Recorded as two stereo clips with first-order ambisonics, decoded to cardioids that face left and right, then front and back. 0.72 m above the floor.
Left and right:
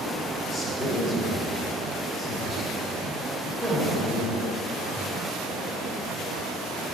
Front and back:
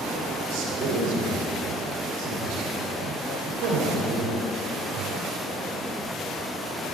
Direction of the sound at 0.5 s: 170° right.